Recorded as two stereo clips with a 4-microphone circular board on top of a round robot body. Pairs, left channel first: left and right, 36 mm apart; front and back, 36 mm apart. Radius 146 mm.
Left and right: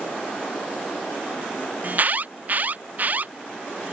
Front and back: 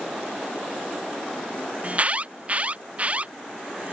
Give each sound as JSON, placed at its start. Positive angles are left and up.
{"t": 1.8, "sound": "an alarm", "azimuth_deg": -130}